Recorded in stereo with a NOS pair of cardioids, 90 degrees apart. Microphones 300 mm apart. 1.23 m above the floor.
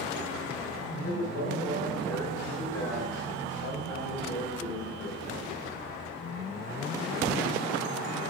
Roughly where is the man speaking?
Ahead left.